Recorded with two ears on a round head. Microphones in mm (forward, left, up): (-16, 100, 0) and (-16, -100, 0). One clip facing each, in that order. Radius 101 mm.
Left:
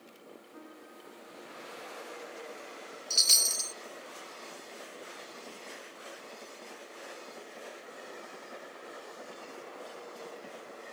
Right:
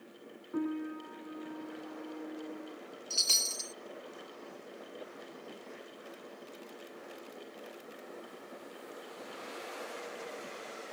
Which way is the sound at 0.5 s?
65° right (ahead or behind).